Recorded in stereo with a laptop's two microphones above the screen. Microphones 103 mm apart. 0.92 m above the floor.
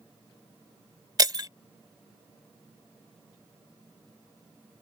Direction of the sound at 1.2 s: 40° right (ahead or behind).